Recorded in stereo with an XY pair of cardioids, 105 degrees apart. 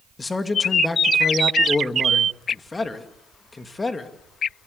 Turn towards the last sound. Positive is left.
turn(degrees=20)